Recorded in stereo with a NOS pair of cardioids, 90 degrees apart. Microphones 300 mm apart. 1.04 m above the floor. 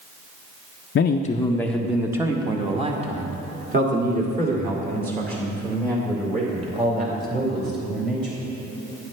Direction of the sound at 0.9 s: 45° left.